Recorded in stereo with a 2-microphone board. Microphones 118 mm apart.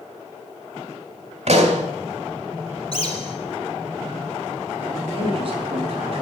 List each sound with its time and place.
1.5 s a pop: 65° right (ahead or behind), 2 m
2.9 s a bird: 50° left (ahead or behind), 2.5 m
5.2 s a man speaking: 45° right (ahead or behind), 5 m